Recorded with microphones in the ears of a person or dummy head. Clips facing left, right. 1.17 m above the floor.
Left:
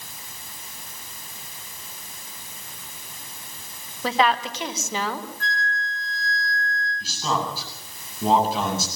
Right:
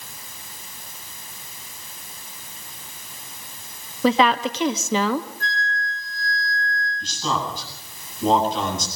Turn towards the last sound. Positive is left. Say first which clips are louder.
# even
turn(degrees=5)  # may be behind; listen again after turning